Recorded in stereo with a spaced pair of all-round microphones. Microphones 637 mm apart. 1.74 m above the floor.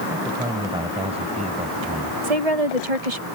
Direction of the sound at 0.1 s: 5° right (ahead or behind).